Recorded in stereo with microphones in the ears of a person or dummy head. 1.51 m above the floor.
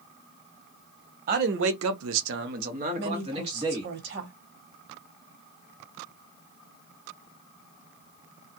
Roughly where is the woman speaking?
Right.